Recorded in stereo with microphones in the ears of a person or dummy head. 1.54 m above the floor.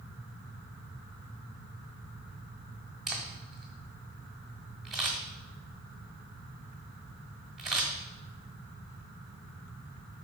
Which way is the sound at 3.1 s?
Centre (ahead or behind).